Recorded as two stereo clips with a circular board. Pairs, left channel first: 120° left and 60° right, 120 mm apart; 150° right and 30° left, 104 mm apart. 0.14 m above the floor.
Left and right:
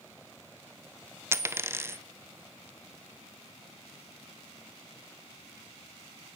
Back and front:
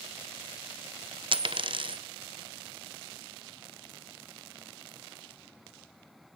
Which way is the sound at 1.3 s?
5° left.